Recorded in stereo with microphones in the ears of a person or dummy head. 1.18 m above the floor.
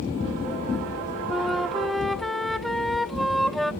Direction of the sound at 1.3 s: 5° left (ahead or behind).